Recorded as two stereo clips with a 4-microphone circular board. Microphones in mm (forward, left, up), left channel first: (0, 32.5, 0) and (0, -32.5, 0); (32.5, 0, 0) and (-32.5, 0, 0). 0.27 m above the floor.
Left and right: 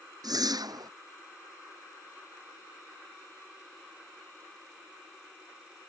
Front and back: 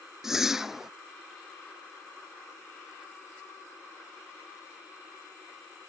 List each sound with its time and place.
0.2 s a whoosh: 95° right